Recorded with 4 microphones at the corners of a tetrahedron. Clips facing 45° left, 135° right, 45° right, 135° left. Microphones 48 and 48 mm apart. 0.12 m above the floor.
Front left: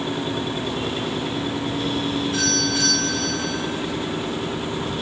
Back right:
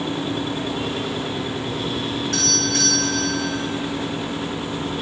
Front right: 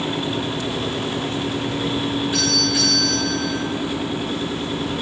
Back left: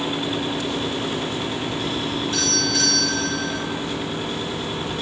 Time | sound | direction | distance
2.3 | a doorbell | 125° right | 9.5 m